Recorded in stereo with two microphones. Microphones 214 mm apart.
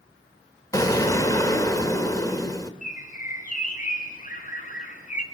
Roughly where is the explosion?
Centre.